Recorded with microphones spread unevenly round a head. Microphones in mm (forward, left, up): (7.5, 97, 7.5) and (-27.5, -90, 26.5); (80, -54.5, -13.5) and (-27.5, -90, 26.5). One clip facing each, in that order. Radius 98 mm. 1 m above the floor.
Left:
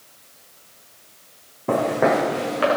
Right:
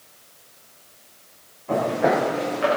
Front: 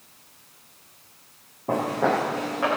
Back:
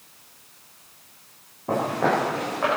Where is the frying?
No frying in this recording.